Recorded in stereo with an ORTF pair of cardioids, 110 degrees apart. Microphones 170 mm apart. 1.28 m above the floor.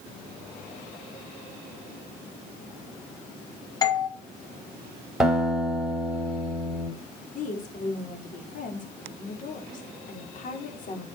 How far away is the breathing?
I don't hear breathing.